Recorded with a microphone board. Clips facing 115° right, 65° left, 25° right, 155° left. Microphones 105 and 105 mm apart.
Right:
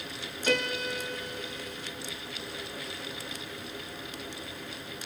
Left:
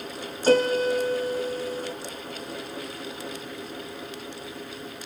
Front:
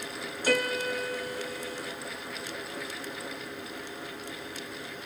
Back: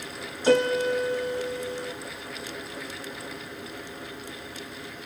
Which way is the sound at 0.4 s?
105° left.